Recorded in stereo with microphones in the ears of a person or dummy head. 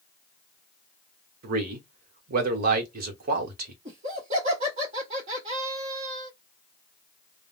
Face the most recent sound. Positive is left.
turn(degrees=-35)  # may be behind; listen again after turning